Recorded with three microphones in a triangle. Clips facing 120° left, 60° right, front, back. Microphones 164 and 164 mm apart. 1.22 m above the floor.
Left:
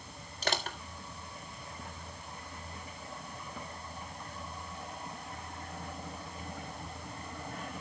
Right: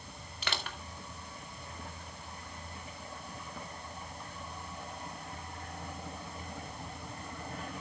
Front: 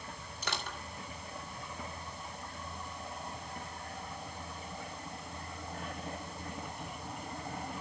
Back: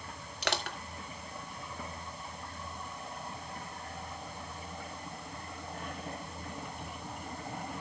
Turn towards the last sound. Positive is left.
turn(degrees=165)